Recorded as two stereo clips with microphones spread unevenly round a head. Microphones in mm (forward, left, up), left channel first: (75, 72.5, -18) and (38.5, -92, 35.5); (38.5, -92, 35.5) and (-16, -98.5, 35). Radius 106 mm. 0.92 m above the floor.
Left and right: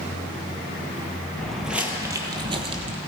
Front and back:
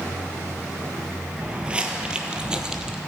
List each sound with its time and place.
1.4 s footsteps: 155° right, 0.9 m; by 3.0 s 100° right, 1.4 m